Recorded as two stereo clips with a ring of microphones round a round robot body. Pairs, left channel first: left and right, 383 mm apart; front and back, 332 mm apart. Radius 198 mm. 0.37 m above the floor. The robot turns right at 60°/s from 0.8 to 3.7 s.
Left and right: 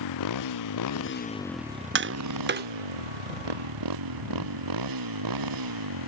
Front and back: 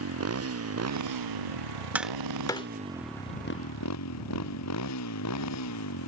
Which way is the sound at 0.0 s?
135° left.